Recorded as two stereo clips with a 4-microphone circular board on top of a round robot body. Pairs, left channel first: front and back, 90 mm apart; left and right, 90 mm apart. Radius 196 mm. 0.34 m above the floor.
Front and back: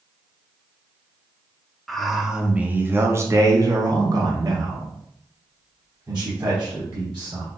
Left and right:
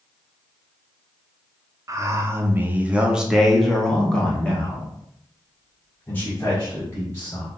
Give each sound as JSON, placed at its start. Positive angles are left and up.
{"t": 1.9, "sound": "a man speaking", "azimuth_deg": -85, "distance_m": 1.1}